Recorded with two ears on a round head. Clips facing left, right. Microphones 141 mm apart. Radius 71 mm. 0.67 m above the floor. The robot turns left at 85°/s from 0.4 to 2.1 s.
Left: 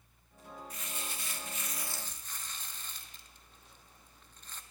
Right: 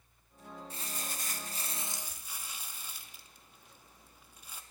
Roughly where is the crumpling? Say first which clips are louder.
Right 2 dB; ahead right.